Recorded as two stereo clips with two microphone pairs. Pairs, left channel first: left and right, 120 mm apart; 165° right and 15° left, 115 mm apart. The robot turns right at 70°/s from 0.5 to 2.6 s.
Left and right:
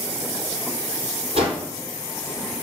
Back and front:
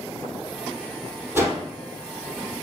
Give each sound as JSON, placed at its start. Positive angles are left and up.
{"t": 1.4, "sound": "a whoosh", "azimuth_deg": -60, "distance_m": 3.0}